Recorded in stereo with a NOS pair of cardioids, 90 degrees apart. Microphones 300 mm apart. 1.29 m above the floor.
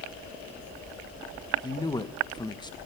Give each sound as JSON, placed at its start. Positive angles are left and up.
{"t": 1.6, "sound": "a man speaking", "azimuth_deg": 15, "distance_m": 1.5}